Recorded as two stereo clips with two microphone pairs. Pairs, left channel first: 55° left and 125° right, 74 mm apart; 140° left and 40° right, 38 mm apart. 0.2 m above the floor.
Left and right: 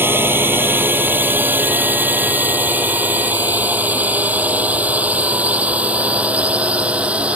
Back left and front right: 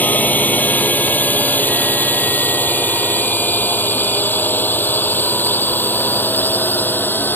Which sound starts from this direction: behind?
A drone, at 0.0 s.